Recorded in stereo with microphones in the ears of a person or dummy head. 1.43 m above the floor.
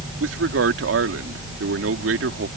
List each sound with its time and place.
0.2 s a man speaking: 75° right (ahead or behind)